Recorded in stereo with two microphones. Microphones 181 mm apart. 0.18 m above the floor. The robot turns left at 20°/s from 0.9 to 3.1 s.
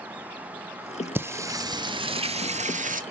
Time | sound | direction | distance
1.1 | singing | 10° right (ahead or behind) | 0.6 m